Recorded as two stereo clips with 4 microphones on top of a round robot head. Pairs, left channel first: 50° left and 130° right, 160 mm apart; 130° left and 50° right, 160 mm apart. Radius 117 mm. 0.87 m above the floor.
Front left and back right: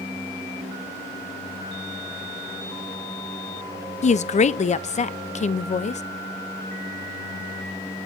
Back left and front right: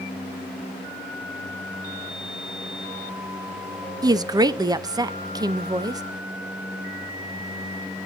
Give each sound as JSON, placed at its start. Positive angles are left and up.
{"t": 4.0, "sound": "a woman speaking", "azimuth_deg": 15, "distance_m": 0.6}